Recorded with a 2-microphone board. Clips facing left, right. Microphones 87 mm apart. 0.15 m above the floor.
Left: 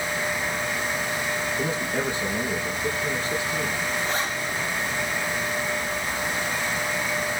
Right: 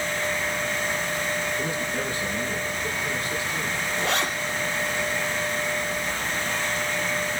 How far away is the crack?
I don't hear a crack.